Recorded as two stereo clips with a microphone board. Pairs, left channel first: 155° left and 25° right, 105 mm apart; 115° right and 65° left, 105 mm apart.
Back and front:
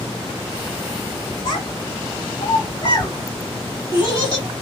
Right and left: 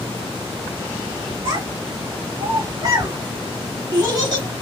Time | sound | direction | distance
1.4 | a child speaking | 120° left | 2.5 m